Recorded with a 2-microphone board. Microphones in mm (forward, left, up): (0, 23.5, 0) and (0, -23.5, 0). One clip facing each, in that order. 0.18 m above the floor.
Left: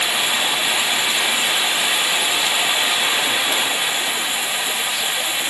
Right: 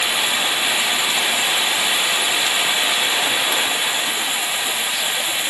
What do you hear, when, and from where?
Only background noise.